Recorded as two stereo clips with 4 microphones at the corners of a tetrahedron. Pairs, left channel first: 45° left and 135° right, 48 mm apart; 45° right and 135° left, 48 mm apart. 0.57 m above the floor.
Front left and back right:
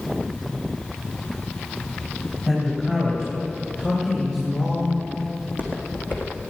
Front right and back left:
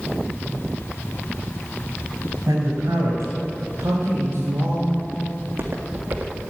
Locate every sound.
2.5 s a man speaking: 125° left, 3.5 m; by 5.0 s 110° left, 2.5 m
5.4 s footsteps: 100° left, 1.9 m; by 6.5 s 85° left, 3 m